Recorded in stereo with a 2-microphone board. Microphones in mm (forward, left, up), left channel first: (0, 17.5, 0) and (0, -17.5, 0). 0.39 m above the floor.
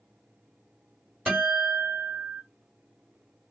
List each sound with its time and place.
1.3 s a guitar: 35° right (ahead or behind), 1.7 m